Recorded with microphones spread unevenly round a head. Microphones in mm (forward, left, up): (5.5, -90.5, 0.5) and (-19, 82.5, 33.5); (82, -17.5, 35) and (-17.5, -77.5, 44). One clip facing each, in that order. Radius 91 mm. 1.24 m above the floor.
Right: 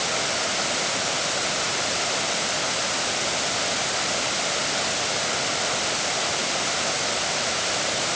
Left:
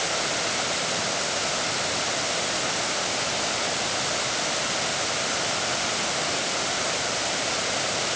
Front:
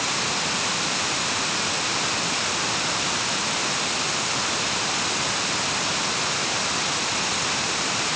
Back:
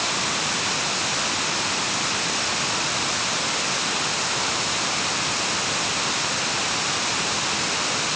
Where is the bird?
No bird in this recording.